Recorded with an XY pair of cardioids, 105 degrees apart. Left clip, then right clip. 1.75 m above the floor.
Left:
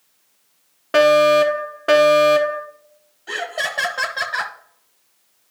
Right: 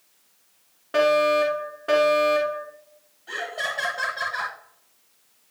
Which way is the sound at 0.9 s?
65° left.